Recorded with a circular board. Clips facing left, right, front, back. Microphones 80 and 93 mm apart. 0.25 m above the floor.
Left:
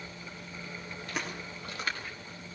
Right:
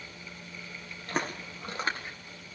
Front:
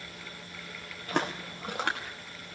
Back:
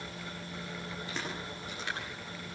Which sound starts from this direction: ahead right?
Footsteps, at 1.1 s.